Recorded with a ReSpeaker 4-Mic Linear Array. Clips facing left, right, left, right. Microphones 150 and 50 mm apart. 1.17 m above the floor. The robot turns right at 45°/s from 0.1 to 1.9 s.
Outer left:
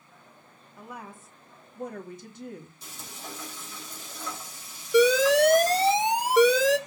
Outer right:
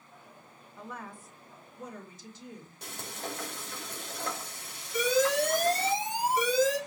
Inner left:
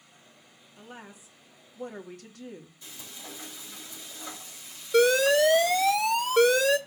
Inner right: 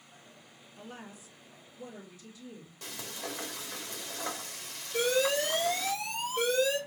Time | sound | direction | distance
0.8 | a woman speaking | 5° left | 2.5 m
2.8 | frying | 65° right (ahead or behind) | 3.5 m
4.9 | an alarm | 80° left | 1.1 m